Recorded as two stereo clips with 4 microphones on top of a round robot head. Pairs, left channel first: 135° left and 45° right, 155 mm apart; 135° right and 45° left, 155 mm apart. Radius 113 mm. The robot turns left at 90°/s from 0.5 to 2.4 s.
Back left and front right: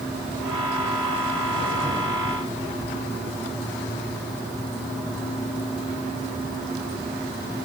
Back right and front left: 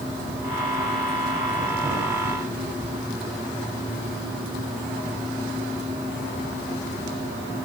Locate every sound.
Only background noise.